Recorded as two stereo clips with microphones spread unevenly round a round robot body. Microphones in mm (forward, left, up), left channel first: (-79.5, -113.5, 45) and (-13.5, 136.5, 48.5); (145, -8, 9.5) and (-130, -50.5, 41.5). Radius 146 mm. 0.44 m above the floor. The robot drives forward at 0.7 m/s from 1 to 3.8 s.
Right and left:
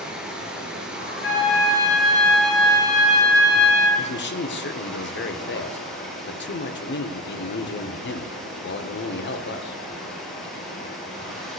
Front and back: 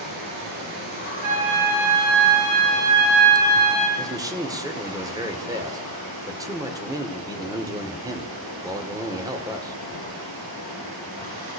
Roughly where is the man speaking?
Right.